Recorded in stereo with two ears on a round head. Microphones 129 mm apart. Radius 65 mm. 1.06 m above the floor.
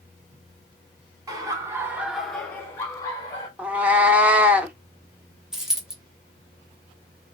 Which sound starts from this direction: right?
Laughter, at 1.3 s.